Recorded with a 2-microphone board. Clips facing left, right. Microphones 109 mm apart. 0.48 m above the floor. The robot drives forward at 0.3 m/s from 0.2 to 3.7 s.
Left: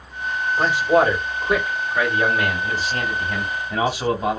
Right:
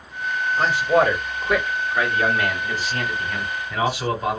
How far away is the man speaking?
About 1.6 m.